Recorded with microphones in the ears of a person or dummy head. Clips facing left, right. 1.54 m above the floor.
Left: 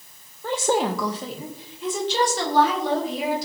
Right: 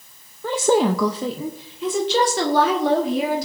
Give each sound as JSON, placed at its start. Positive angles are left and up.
{"t": 0.4, "sound": "a woman speaking", "side_deg": -75, "distance_m": 0.7}